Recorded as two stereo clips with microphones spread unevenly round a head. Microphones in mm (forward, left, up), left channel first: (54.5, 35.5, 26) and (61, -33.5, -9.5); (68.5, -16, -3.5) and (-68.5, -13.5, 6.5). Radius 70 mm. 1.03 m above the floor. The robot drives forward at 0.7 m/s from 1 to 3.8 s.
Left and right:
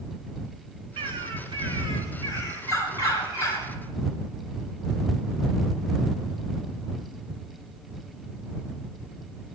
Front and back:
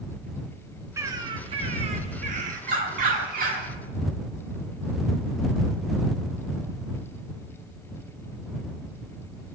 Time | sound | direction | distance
1.0 | a bird | 115° right | 0.9 m